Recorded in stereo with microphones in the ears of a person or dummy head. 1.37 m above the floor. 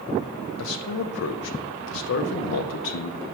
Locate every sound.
0.6 s a man speaking: 70° left (ahead or behind), 0.6 m